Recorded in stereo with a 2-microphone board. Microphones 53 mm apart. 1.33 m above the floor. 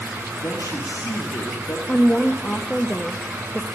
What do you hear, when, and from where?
0.4 s a man speaking: 85° left, 1.7 m
1.9 s a woman speaking: 20° left (ahead or behind), 0.7 m